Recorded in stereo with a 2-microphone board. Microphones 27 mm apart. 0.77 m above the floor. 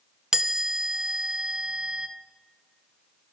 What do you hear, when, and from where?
0.3 s a chime: 25° right (ahead or behind), 0.6 m